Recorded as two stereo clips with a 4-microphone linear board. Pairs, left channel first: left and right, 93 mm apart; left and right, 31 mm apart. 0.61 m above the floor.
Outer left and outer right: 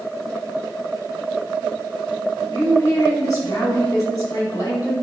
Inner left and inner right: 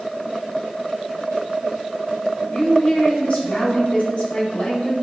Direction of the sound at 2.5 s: 35° left (ahead or behind).